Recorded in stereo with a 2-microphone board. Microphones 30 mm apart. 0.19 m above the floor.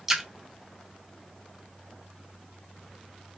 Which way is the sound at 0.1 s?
15° right (ahead or behind).